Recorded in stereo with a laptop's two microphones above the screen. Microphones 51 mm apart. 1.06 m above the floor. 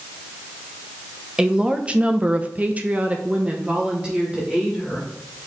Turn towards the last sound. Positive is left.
turn(degrees=-15)  # may be behind; listen again after turning